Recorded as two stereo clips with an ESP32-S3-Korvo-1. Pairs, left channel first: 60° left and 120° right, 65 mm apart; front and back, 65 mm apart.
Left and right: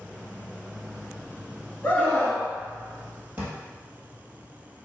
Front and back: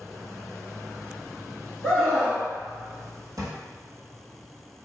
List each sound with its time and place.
1.8 s a scream: 75° left, 1.5 m
3.4 s a drawer: straight behind, 1.6 m